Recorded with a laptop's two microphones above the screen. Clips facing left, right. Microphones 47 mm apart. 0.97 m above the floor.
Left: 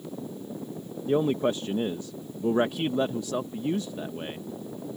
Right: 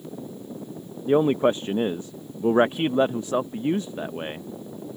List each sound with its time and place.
1.1 s a man speaking: 35° right (ahead or behind)